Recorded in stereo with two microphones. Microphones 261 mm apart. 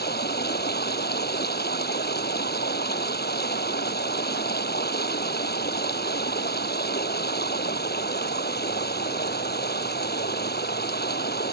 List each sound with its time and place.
0.0 s running water: 40° left (ahead or behind)